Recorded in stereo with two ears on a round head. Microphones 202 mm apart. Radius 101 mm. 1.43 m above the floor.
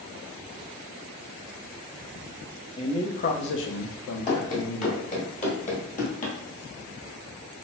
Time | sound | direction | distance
2.8 | a man speaking | 25° left (ahead or behind) | 0.8 m
4.3 | running footsteps | 30° left (ahead or behind) | 1.6 m